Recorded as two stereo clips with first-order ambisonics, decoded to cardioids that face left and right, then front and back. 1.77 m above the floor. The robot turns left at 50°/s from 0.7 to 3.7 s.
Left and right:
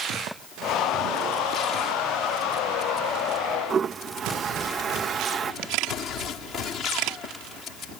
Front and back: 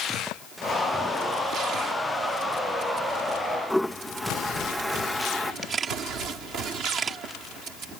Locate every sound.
3.7 s a toilet flushing: 85° right
5.6 s a camera shutter: 110° right